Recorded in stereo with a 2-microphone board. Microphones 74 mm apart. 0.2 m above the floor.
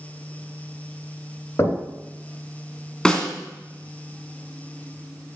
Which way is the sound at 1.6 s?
40° left (ahead or behind).